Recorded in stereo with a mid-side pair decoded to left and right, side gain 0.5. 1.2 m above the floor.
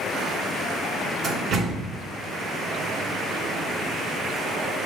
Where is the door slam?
55° right, 2.5 m.